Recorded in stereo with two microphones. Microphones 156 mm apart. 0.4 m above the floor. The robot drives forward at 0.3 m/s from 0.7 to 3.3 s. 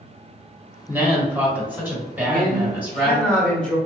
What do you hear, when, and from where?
0.9 s a woman speaking: 15° right (ahead or behind), 1.3 m; by 3.2 s 10° right (ahead or behind), 1.9 m
2.2 s a man speaking: 5° left (ahead or behind), 0.9 m